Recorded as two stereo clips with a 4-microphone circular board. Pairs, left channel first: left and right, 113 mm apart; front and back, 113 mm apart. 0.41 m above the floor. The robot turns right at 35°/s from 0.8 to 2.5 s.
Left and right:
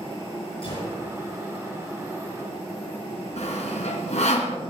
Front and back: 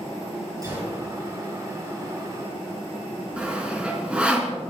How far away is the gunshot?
About 10 m.